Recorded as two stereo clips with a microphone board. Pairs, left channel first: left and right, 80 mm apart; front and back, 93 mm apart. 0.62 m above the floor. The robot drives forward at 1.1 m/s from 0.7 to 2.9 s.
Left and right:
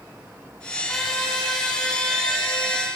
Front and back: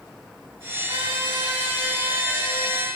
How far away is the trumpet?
About 3 m.